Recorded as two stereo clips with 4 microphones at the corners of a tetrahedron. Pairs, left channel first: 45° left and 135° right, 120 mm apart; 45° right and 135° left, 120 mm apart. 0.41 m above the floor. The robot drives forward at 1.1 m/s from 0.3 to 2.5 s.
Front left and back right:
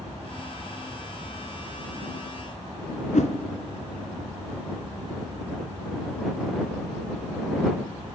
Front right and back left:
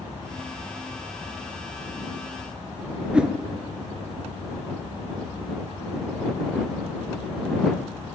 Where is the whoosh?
55° left, 1.4 m.